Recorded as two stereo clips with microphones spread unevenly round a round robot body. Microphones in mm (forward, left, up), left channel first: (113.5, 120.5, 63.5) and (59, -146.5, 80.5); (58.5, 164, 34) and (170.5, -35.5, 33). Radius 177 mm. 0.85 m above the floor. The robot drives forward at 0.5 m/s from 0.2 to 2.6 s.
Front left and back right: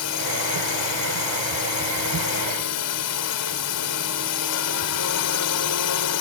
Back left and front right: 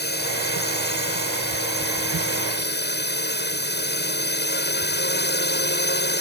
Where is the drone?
80° left; by 6.2 s 85° left.